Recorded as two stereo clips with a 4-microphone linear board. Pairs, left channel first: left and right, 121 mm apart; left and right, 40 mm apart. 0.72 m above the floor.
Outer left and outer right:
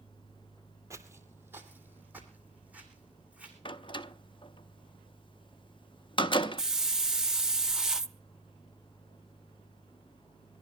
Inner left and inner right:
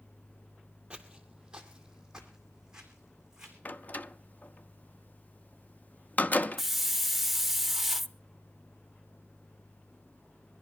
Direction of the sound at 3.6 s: 40° left (ahead or behind).